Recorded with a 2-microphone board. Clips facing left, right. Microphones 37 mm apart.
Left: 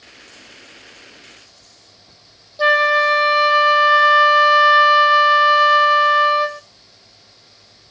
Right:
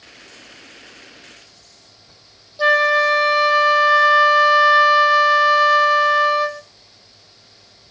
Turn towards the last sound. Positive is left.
turn(degrees=10)  # may be behind; listen again after turning